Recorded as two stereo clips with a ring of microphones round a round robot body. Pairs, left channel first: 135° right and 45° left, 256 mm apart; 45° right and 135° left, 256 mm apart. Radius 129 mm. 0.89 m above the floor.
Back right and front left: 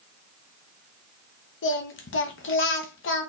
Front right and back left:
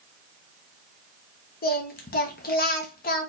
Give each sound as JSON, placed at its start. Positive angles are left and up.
{"t": 1.6, "sound": "singing", "azimuth_deg": -95, "distance_m": 0.9}